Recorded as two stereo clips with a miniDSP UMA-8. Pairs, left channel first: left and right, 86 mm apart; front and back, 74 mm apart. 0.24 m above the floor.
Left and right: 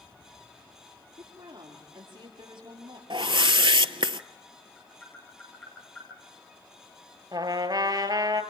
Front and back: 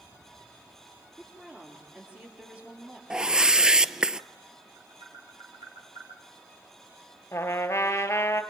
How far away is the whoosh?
About 0.7 m.